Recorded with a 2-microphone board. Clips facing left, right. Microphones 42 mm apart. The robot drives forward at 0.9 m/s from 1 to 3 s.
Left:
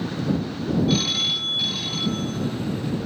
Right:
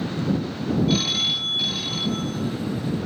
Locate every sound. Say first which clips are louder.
0.9 s a phone ringing: even; centre (ahead or behind), 0.5 m